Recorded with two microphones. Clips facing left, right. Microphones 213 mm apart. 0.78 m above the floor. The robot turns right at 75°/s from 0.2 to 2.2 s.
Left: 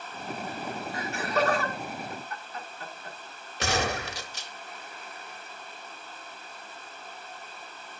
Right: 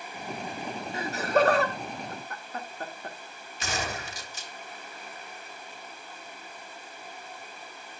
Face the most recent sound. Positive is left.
turn(degrees=75)  # may be behind; listen again after turning